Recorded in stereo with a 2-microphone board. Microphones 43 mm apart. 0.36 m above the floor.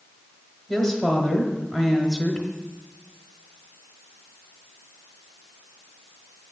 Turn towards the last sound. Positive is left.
turn(degrees=-5)  # may be behind; listen again after turning